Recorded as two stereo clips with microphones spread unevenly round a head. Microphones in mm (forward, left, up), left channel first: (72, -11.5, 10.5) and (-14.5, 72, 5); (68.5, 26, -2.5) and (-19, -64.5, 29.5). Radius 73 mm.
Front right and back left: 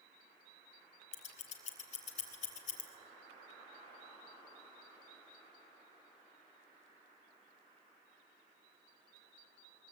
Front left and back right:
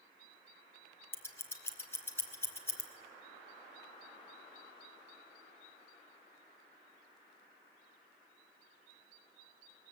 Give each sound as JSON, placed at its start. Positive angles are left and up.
{"t": 1.1, "sound": "scissors", "azimuth_deg": -25, "distance_m": 2.5}